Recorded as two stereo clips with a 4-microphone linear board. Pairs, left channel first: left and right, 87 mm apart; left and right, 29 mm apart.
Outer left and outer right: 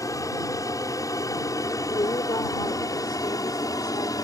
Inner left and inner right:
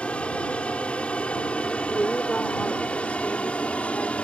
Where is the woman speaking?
70° left (ahead or behind).